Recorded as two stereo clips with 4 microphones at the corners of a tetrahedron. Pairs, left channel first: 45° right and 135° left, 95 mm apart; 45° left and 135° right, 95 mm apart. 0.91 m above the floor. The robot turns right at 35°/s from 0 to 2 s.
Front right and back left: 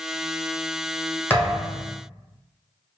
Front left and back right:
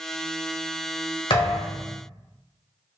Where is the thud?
25° left, 1.5 m; by 1.8 s 45° left, 1.5 m.